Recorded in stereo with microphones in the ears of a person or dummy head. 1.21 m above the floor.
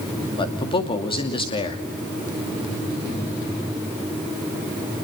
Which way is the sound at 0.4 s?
30° left (ahead or behind).